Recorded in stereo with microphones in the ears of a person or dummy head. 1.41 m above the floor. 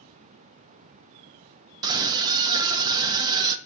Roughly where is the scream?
Right.